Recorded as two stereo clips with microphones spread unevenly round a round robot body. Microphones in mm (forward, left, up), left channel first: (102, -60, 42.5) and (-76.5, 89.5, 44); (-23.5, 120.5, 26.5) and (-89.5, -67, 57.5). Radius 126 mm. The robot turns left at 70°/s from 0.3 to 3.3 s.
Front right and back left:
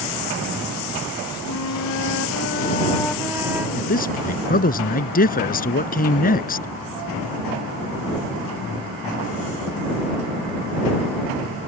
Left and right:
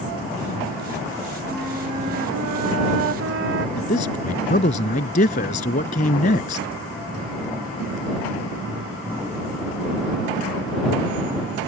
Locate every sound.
1.5 s a flute: 10° right; by 3.7 s 140° right
3.8 s a man speaking: 15° left